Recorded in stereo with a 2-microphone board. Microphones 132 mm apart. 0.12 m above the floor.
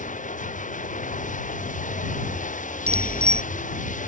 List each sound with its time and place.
0.0 s running water: 75° left (ahead or behind)
2.9 s a bicycle bell: 55° right (ahead or behind)